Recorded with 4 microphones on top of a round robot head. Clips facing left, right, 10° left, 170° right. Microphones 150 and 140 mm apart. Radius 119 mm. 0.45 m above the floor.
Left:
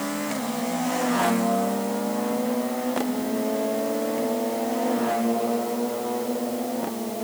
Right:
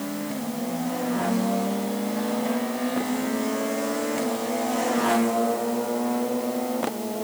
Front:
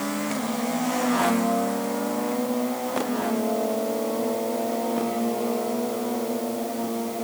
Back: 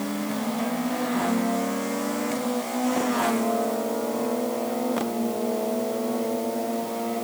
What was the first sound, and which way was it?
Only background noise.